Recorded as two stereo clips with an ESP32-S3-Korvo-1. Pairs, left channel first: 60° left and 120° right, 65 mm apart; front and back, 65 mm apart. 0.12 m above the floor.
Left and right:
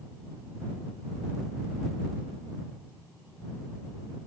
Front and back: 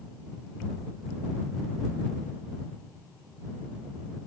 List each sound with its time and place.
Only background noise.